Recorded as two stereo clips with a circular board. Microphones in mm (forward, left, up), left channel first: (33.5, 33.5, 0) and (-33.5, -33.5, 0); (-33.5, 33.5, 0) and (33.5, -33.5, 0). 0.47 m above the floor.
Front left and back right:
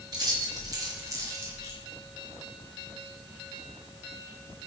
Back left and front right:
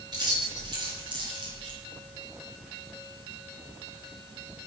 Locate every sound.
0.1 s keys jangling: 85° right, 4 m; by 1.8 s 70° right, 3 m